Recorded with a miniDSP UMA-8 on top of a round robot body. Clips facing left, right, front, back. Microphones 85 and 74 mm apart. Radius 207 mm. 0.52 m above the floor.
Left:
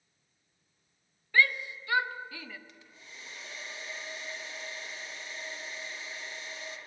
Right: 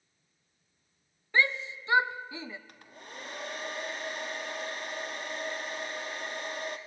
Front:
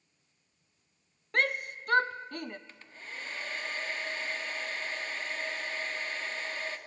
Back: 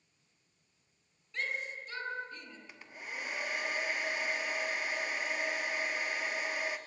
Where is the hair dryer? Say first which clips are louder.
Right 6 dB, back 1 dB; 105° right, 1.8 m.